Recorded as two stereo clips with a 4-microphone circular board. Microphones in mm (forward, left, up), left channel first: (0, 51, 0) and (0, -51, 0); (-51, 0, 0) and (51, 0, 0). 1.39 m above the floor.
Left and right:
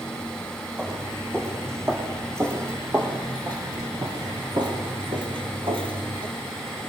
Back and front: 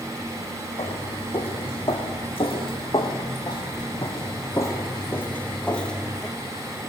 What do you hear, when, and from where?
0.8 s footsteps: 160° right, 5 m; by 6.3 s 90° right, 2.5 m